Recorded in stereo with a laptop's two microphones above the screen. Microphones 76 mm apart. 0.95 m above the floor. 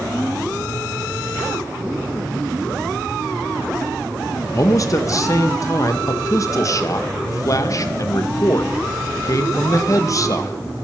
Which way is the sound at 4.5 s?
45° left (ahead or behind).